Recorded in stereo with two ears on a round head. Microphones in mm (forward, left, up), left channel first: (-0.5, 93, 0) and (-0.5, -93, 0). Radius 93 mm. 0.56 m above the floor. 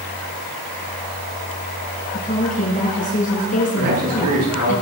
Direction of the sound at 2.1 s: 35° left (ahead or behind).